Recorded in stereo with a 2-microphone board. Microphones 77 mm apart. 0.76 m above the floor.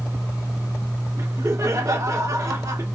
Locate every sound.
1.2 s laughter: 45° right (ahead or behind), 1.4 m